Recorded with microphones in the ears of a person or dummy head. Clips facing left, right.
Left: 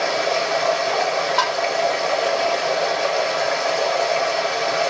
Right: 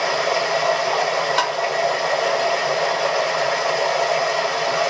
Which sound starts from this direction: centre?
Running water, at 0.0 s.